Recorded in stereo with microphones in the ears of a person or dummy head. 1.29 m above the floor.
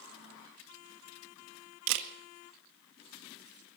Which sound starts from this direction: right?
A camera shutter, at 1.9 s.